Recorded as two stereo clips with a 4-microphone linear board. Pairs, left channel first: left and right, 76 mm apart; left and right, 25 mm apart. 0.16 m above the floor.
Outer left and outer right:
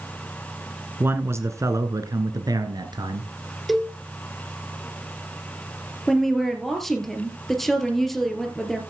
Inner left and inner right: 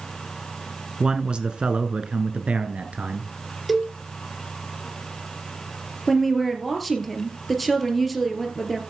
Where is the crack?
I don't hear a crack.